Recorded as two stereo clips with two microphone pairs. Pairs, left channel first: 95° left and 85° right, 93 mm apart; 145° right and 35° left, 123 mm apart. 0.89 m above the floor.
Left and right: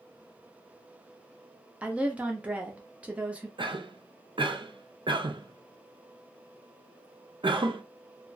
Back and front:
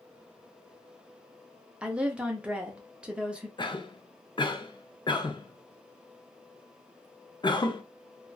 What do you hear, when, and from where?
1.8 s a woman speaking: 25° right, 0.5 m
3.6 s a cough: 100° right, 0.5 m